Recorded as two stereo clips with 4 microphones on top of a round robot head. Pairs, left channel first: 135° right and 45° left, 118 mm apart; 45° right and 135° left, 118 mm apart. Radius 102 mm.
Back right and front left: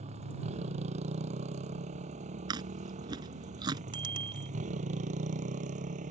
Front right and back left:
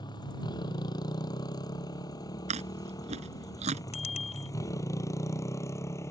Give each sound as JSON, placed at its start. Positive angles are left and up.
{"t": 0.0, "sound": "a motorcycle", "azimuth_deg": 10}
{"t": 2.5, "sound": "chewing", "azimuth_deg": 100}
{"t": 3.9, "sound": "a bicycle bell", "azimuth_deg": -10}